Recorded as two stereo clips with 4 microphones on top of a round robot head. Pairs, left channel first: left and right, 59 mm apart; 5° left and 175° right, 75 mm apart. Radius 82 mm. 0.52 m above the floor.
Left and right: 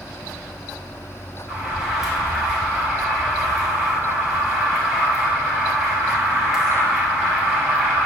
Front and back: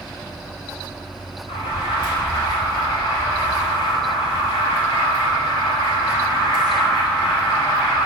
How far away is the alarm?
About 6 m.